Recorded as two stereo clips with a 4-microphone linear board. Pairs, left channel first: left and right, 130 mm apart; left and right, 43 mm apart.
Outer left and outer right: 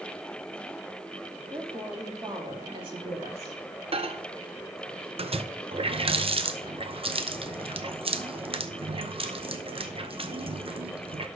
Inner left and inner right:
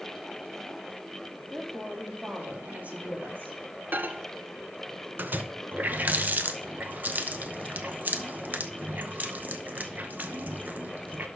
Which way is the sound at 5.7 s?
45° right (ahead or behind).